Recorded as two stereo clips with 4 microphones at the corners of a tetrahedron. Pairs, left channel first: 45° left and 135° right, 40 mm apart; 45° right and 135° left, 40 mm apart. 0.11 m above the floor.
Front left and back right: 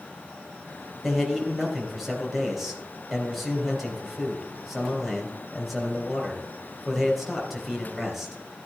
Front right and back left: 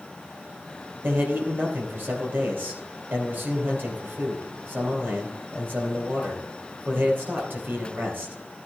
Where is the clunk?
No clunk in this recording.